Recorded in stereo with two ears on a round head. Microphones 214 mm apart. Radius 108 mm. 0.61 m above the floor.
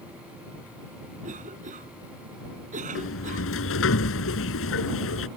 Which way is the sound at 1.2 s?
30° right (ahead or behind).